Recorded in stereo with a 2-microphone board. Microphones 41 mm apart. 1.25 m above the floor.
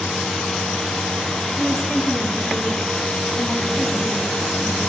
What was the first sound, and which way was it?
A woman speaking, 15° right (ahead or behind).